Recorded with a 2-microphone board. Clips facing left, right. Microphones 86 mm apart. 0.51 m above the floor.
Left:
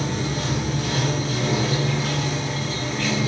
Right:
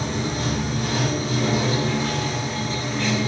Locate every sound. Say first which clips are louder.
0.0 s running water: even; 40° right (ahead or behind), 1.6 m